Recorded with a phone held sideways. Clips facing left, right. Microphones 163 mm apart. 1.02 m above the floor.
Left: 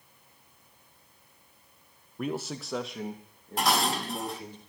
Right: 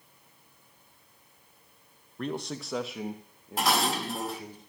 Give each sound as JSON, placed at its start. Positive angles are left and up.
{"t": 2.2, "sound": "a man speaking", "side_deg": 10, "distance_m": 0.6}
{"t": 3.6, "sound": "dishes clattering", "side_deg": 0, "distance_m": 1.0}